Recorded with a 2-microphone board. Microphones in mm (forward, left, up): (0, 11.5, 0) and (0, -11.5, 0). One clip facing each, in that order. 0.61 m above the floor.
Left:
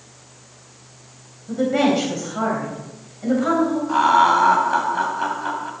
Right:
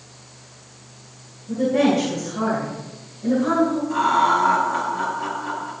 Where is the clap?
No clap in this recording.